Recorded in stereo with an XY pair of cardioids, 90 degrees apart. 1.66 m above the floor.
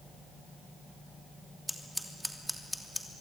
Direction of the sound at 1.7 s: Straight ahead.